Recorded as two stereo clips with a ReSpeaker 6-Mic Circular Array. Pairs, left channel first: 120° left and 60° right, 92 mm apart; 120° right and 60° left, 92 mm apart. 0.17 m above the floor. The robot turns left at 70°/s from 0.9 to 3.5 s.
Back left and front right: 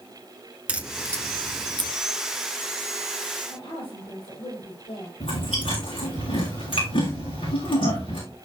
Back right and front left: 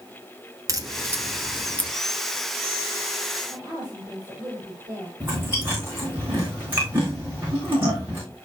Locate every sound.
0.7 s a crack: 15° left, 1.5 m; by 1.9 s 55° right, 1.5 m
3.5 s a woman speaking: 115° left, 6 m
5.2 s chewing: 125° left, 6 m